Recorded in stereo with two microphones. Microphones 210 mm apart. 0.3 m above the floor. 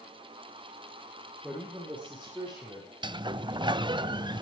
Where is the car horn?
I don't hear a car horn.